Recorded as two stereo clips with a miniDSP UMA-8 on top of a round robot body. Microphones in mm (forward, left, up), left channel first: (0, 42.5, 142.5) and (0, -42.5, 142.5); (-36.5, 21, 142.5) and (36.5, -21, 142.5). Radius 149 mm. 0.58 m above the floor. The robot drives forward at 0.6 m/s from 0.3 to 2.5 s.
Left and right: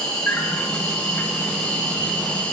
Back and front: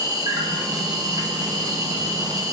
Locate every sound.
0.0 s an insect: 10° left, 8 m; by 2.5 s 15° left, 6.5 m